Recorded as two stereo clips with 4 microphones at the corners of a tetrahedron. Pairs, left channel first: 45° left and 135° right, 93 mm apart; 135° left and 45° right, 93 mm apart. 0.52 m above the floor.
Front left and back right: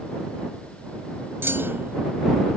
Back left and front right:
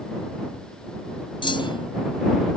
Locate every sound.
1.4 s a clunk: 160° left